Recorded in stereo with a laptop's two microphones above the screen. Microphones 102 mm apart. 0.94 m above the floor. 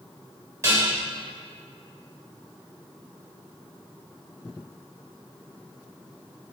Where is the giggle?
I don't hear a giggle.